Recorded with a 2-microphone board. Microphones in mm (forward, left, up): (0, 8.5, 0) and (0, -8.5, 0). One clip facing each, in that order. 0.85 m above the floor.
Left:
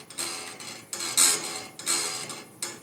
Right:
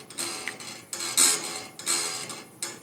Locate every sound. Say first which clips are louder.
0.5 s a finger snap: right 7 dB; 80° right, 1.5 m